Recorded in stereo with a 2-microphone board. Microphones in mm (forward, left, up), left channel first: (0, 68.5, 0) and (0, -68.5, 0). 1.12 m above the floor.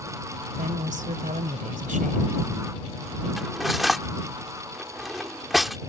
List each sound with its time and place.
0.6 s a woman speaking: 85° right
3.4 s cutlery clinking: centre (ahead or behind)